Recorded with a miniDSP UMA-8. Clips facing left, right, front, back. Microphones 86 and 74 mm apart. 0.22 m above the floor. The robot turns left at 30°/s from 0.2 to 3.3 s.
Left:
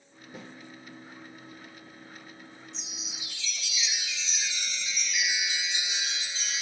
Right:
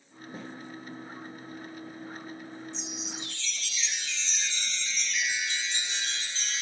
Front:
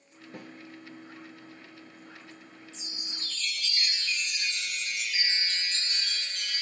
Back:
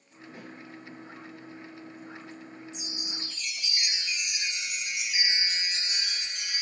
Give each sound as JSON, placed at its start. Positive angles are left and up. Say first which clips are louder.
{"t": 0.3, "sound": "a snare drum", "louder": "right 3 dB, front 1 dB", "azimuth_deg": -35, "distance_m": 7.5}
{"t": 2.7, "sound": "a chime", "louder": "right 7 dB, back 5 dB", "azimuth_deg": 175, "distance_m": 0.6}